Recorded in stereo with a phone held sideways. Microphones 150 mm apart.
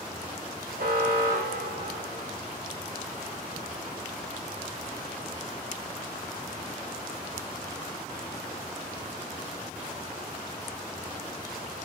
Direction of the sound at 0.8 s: 85° right.